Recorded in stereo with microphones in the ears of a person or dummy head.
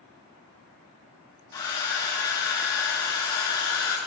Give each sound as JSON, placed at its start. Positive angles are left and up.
{"t": 1.5, "sound": "a hair dryer", "side_deg": 15, "distance_m": 1.7}